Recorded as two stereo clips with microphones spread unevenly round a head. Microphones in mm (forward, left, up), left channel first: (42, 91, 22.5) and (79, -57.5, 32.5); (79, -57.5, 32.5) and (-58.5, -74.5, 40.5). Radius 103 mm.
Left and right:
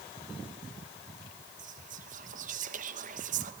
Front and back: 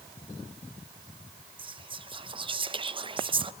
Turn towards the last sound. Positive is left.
turn(degrees=-120)